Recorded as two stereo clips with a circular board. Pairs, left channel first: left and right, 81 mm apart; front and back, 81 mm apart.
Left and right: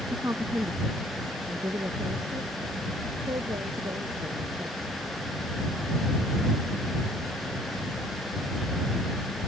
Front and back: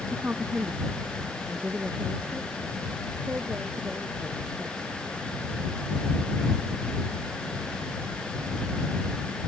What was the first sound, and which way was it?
A woman speaking, 120° right.